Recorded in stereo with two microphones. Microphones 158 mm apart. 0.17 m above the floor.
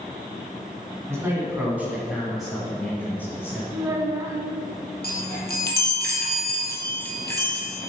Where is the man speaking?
20° right (ahead or behind), 1.9 m; by 3.6 s 15° left (ahead or behind), 2.0 m.